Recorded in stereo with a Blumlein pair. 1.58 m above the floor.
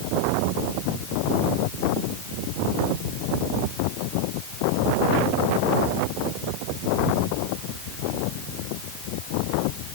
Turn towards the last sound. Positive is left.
No sound to turn to.